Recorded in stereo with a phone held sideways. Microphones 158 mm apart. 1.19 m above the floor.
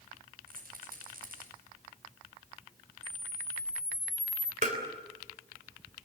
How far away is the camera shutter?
About 1.1 m.